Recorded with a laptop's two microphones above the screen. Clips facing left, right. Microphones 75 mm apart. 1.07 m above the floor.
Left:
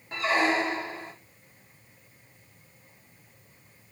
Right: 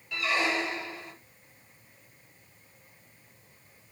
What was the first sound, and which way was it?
A squeak, 35° left (ahead or behind).